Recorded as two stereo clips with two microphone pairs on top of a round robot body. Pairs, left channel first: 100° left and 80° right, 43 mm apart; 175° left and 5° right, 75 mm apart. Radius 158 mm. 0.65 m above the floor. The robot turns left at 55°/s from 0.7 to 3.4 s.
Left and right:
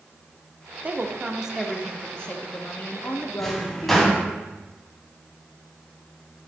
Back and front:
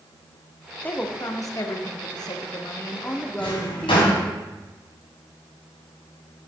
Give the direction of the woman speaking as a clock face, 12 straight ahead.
4 o'clock.